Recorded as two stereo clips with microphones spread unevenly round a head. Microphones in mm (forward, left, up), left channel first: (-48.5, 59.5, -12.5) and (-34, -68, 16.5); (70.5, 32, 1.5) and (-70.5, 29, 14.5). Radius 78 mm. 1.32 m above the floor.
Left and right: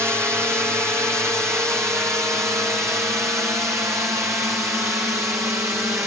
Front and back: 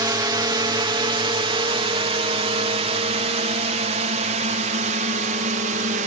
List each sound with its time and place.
0.0 s a drone: 155° right